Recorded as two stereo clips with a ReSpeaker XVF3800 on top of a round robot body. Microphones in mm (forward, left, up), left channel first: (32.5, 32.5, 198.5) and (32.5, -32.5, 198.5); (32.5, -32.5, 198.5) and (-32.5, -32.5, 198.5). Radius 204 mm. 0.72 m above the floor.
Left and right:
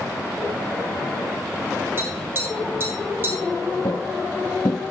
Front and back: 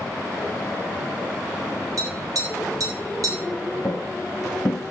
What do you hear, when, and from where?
2.0 s tapping: 145° right, 4.5 m
3.8 s footsteps: 60° left, 0.9 m